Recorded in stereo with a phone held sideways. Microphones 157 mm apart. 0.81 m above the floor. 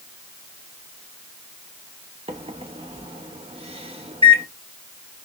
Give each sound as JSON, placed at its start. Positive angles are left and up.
{"t": 2.3, "sound": "a microwave", "side_deg": -40, "distance_m": 0.9}